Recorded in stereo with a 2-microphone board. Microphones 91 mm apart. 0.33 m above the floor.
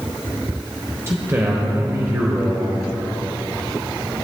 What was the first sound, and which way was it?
A man speaking, 25° right (ahead or behind).